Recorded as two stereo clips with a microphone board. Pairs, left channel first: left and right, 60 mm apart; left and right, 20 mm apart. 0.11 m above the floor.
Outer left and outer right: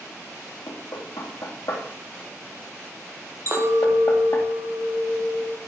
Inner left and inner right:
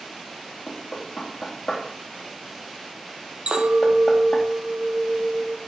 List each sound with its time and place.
0.7 s knocking: 70° left (ahead or behind), 2 m
3.5 s a clink: 60° right (ahead or behind), 2.5 m